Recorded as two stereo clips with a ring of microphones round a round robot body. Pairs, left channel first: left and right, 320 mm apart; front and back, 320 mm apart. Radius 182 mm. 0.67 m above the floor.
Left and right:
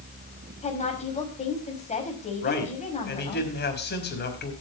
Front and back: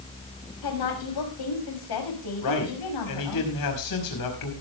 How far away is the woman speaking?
About 5.5 m.